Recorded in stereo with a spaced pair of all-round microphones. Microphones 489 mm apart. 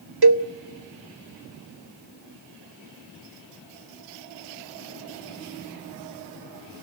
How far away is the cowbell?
About 0.7 m.